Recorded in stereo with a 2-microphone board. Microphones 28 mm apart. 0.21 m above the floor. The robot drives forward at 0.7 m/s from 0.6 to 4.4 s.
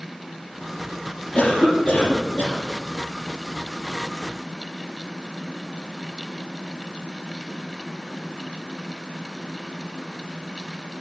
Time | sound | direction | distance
1.4 | a cough | 45° left (ahead or behind) | 5.5 m